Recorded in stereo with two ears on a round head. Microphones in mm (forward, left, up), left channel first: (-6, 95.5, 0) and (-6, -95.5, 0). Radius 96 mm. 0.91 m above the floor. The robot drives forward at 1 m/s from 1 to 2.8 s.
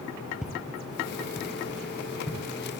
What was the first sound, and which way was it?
Footsteps, 5° right (ahead or behind).